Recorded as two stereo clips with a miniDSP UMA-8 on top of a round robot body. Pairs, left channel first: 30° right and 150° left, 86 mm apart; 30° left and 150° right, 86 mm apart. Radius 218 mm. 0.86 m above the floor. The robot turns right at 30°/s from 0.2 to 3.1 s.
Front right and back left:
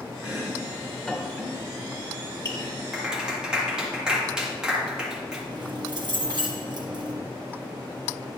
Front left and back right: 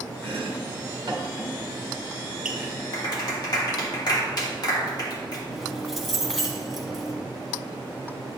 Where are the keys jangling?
120° left, 1.5 m.